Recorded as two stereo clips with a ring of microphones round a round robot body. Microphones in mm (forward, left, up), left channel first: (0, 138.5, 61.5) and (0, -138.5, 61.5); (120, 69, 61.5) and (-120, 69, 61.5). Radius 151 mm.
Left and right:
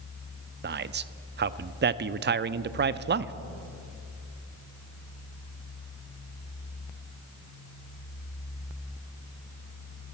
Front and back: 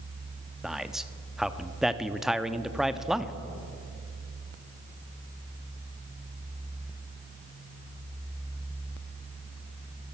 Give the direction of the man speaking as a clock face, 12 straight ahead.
3 o'clock.